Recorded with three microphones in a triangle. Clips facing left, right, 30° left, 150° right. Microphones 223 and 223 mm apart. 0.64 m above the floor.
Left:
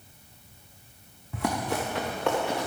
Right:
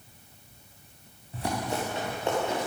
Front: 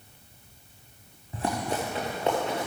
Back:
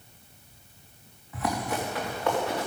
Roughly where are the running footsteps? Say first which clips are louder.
Left 2 dB, even; left.